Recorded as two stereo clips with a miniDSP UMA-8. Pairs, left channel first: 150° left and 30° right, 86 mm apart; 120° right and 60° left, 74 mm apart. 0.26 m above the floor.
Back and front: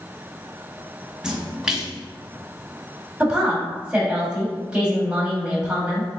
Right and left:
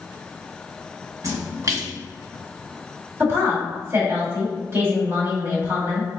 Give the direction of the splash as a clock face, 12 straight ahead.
10 o'clock.